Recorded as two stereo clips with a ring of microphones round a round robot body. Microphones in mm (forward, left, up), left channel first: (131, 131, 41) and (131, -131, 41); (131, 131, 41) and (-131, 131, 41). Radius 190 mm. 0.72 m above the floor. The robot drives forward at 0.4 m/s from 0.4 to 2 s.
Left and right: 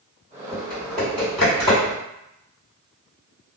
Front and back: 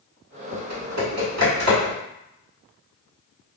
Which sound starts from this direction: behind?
Typing on a keyboard, at 0.5 s.